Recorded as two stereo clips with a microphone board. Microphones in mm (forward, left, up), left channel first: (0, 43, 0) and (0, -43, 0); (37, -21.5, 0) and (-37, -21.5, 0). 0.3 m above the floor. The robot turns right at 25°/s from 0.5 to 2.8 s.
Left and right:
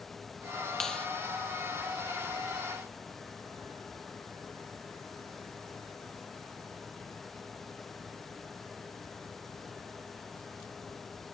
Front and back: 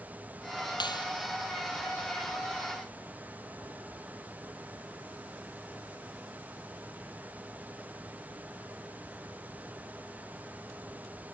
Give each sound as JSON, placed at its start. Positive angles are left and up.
{"t": 0.8, "sound": "a clap", "azimuth_deg": 5}